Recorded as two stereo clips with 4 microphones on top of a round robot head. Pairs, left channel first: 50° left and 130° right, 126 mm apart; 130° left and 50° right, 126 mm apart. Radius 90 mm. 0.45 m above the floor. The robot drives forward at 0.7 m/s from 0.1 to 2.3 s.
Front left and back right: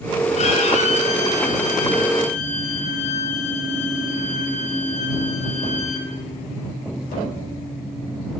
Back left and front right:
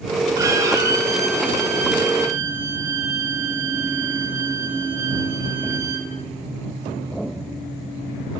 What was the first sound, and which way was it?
A violin, 15° left.